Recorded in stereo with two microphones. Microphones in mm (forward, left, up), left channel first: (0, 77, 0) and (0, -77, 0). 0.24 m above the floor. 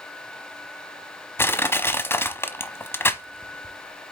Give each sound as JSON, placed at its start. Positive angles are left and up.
{"t": 1.4, "sound": "crushing", "side_deg": 15, "distance_m": 0.7}